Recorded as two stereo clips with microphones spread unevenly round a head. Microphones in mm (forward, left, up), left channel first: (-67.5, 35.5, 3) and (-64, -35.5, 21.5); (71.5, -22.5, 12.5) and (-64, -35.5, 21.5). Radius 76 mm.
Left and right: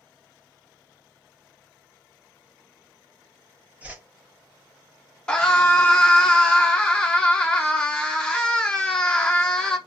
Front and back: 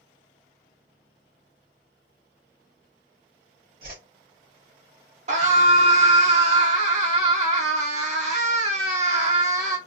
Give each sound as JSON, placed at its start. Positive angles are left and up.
{"t": 3.8, "sound": "a whoosh", "azimuth_deg": -165, "distance_m": 1.4}
{"t": 5.3, "sound": "a scream", "azimuth_deg": 155, "distance_m": 1.1}